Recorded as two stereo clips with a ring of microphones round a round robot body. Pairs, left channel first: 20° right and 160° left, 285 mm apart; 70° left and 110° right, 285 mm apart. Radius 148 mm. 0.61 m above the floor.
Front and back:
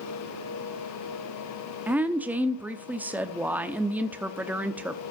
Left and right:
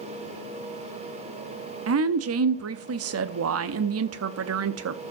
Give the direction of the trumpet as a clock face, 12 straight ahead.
No trumpet in this recording.